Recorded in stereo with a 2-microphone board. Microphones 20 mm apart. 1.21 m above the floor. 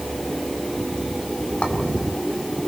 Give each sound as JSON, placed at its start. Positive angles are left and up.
{"t": 1.6, "sound": "a clink", "side_deg": 75, "distance_m": 3.0}